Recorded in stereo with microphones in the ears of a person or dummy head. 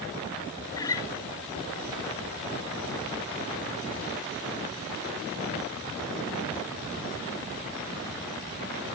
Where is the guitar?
20° left (ahead or behind), 1.5 m.